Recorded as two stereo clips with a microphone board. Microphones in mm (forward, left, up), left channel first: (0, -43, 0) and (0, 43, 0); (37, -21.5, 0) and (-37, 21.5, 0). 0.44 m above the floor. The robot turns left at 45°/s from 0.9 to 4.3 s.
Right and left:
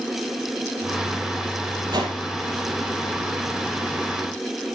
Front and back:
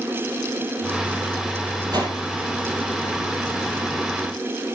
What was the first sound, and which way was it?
A whoosh, 120° left.